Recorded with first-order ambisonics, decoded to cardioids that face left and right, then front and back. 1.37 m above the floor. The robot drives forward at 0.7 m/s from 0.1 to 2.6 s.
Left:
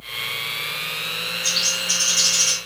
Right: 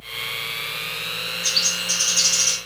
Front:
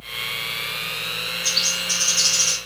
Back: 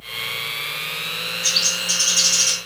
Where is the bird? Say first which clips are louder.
Even, back 2 dB; 165° right, 3 m; by 2.5 s 170° right, 3.5 m.